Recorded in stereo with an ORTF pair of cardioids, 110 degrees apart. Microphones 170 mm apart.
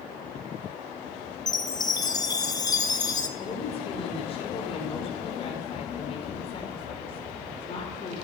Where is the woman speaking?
35° left, 4.5 m.